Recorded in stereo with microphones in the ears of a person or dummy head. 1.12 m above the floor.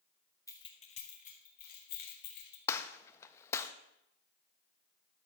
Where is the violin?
No violin in this recording.